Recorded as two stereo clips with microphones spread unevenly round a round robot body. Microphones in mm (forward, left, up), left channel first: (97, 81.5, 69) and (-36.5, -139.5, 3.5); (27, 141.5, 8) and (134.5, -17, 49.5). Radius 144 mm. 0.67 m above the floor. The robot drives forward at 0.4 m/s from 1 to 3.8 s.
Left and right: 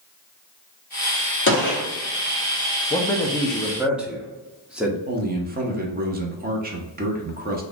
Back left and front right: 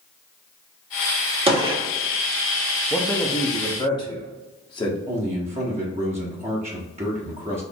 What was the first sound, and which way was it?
A gunshot, 10° left.